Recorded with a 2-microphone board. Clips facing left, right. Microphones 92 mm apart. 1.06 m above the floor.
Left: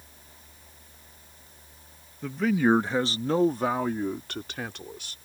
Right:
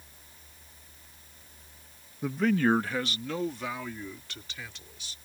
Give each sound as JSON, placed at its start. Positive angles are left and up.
{"t": 2.2, "sound": "a man speaking", "side_deg": -10}